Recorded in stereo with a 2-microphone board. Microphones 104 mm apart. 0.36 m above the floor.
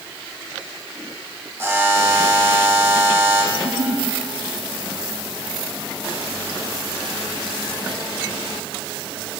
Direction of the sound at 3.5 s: 75° right (ahead or behind).